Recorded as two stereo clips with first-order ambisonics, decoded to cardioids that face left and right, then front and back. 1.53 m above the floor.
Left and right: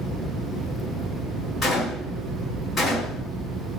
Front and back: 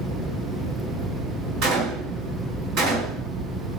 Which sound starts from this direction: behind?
A gunshot, at 1.6 s.